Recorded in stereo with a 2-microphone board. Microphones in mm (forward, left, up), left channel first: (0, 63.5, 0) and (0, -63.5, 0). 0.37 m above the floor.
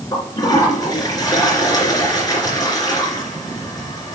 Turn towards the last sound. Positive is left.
turn(degrees=30)  # may be behind; listen again after turning